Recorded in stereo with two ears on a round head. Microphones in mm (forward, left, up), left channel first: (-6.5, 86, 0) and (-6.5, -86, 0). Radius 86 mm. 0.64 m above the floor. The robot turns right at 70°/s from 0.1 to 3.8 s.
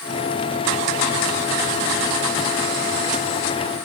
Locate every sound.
Only background noise.